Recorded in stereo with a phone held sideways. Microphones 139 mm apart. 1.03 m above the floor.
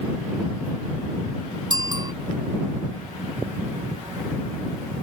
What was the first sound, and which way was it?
A bicycle bell, 30° right (ahead or behind).